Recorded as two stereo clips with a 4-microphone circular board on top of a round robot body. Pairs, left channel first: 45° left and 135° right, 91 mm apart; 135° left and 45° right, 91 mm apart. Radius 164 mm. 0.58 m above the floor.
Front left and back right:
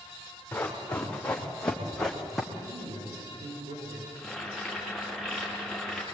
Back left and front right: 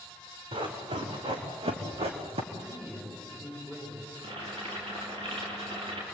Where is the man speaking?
125° right, 9 m.